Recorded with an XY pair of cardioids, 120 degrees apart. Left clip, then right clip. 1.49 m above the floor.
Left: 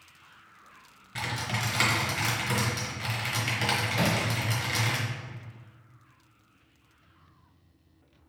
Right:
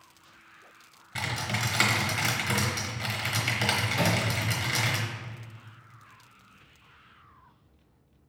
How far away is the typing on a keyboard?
About 1.0 m.